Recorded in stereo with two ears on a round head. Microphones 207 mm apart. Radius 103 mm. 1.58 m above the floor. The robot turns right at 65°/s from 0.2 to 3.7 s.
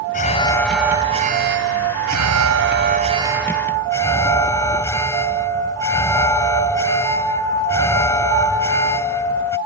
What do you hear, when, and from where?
0.1 s an alarm: 145° left; by 9.6 s 10° left